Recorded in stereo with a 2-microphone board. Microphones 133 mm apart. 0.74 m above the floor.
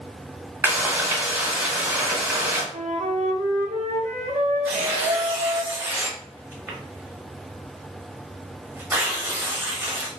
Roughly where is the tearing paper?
Centre.